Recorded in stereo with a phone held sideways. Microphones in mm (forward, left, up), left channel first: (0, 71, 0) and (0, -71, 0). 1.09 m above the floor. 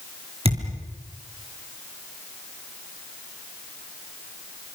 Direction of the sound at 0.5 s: 45° right (ahead or behind).